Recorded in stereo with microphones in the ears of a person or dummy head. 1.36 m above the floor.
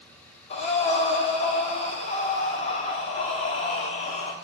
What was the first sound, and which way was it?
Breathing, 35° left (ahead or behind).